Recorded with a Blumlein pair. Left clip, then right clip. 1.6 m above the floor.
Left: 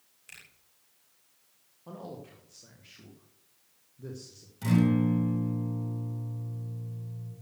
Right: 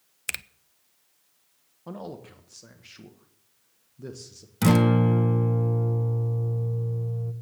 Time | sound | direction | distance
0.3 | a finger snap | 40° right | 0.6 m
1.9 | a man speaking | 20° right | 1.3 m
4.6 | a guitar | 50° right | 1.2 m